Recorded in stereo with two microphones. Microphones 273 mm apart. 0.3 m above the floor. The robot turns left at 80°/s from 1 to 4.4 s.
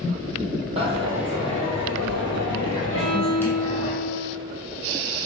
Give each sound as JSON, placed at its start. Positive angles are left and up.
{"t": 0.8, "sound": "a dropped coin", "azimuth_deg": -160, "distance_m": 1.4}
{"t": 2.9, "sound": "a violin", "azimuth_deg": -55, "distance_m": 0.7}